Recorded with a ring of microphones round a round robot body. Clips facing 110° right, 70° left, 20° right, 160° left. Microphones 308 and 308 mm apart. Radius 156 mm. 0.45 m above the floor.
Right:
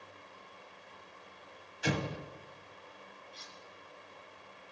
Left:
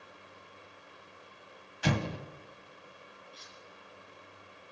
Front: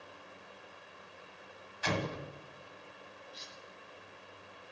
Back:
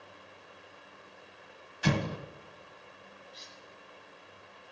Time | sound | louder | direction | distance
1.8 | an explosion | left 2 dB, back 5 dB | 100° left | 1.1 m
3.3 | cutlery clinking | even, even | 65° right | 4 m